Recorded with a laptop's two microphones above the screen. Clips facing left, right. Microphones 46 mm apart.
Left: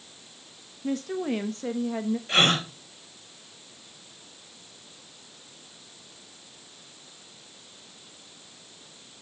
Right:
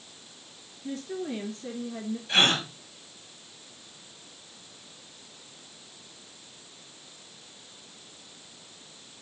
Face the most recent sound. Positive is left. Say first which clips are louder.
# left 1 dB
turn(degrees=55)  # may be behind; listen again after turning